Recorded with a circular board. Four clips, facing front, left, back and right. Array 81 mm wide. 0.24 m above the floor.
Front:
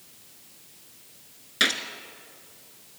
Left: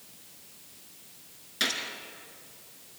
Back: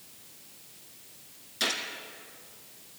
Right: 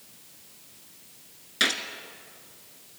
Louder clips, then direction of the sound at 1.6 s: Right 5 dB, front 6 dB; 25° right.